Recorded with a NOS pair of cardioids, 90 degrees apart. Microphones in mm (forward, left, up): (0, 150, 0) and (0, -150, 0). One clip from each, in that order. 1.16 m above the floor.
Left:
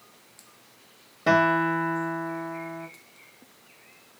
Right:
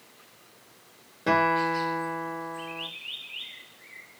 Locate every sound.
1.3 s a guitar: 15° left, 1.2 m